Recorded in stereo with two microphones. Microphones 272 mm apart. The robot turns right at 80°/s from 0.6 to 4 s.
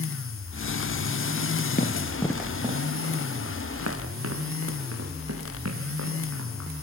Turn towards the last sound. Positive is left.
turn(degrees=-65)  # may be behind; listen again after turning